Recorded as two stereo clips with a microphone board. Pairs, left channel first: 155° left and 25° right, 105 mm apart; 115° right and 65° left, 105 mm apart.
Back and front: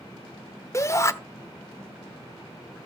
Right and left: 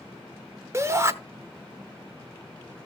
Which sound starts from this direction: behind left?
A shout, at 0.7 s.